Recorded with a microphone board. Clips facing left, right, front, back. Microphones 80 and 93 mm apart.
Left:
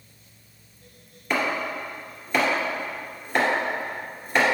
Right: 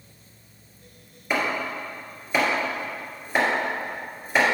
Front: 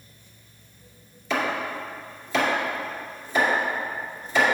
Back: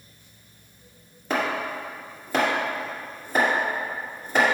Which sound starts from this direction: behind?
Chopping, at 1.3 s.